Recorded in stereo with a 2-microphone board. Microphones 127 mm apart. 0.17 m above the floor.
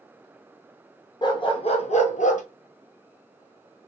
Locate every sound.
1.2 s a dog barking: 35° left (ahead or behind), 1.1 m; by 2.4 s 75° left (ahead or behind), 0.9 m